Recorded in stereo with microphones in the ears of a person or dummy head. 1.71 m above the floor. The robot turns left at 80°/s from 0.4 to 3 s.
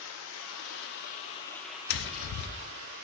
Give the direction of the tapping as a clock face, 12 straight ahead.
8 o'clock.